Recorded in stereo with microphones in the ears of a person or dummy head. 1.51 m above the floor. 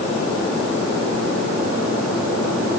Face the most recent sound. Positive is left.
No sound to turn to.